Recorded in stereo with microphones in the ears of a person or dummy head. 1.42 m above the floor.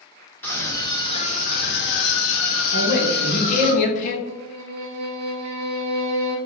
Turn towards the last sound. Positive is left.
turn(degrees=-65)  # may be behind; listen again after turning